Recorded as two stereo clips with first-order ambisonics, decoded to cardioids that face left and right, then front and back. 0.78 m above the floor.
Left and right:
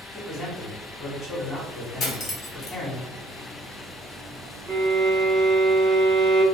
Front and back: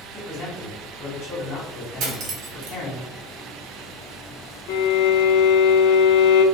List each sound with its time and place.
0.1 s a man speaking: 25° left, 1.9 m
2.0 s cutlery clinking: 140° left, 0.8 m
4.7 s a violin: 10° right, 0.7 m